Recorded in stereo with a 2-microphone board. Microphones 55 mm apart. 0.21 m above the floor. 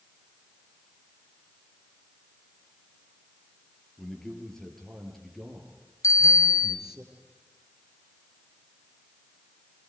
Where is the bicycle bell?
65° left (ahead or behind), 2.5 m.